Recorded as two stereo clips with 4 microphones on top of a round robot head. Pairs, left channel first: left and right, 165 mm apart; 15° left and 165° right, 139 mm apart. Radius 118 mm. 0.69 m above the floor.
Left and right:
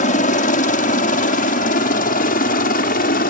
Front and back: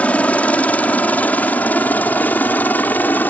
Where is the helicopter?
90° left.